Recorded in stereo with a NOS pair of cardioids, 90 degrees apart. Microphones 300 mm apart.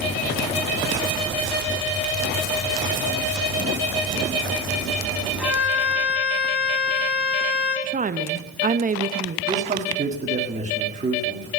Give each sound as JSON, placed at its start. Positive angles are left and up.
{"t": 5.4, "sound": "a violin", "azimuth_deg": -5, "distance_m": 4.0}
{"t": 7.8, "sound": "a woman speaking", "azimuth_deg": -25, "distance_m": 0.8}
{"t": 9.5, "sound": "a man speaking", "azimuth_deg": -25, "distance_m": 1.8}